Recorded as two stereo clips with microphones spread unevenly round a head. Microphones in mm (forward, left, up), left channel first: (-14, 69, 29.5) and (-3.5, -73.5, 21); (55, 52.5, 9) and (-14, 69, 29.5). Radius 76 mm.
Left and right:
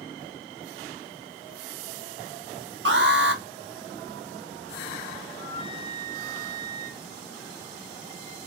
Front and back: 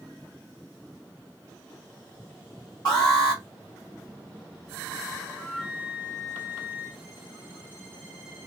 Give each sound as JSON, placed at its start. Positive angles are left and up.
{"t": 2.9, "sound": "an alarm", "azimuth_deg": -85, "distance_m": 1.5}
{"t": 5.3, "sound": "a flute", "azimuth_deg": -120, "distance_m": 1.3}